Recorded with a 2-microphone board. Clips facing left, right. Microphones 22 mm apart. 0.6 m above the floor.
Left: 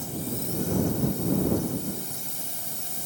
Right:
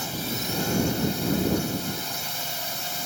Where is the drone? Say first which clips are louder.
Right 4 dB; 50° right (ahead or behind); by 3.1 s 45° right (ahead or behind).